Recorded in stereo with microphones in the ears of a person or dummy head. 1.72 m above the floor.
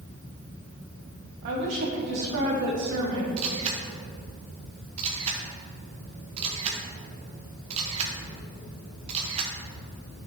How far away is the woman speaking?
About 1.5 m.